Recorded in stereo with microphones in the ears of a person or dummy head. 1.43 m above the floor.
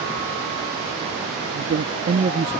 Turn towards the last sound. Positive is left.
turn(degrees=-20)  # may be behind; listen again after turning